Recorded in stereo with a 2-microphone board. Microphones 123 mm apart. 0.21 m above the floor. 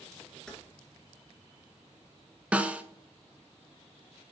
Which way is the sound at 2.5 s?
10° right (ahead or behind).